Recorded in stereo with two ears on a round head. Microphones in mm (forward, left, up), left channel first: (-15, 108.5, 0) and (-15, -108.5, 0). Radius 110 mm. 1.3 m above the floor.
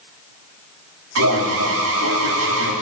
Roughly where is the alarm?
Right.